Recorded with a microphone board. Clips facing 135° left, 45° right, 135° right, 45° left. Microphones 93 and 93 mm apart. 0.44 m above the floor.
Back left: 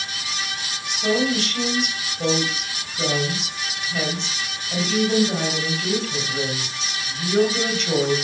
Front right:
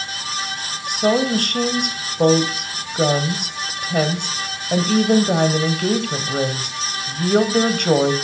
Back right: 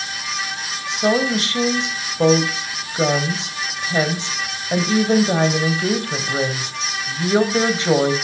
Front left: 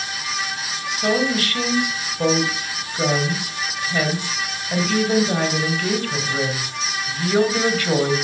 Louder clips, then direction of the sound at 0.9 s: Front right 4 dB, back right 2 dB; 70° right.